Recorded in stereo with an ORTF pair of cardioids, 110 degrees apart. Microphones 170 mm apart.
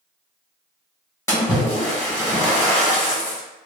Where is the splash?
15° left, 0.7 m.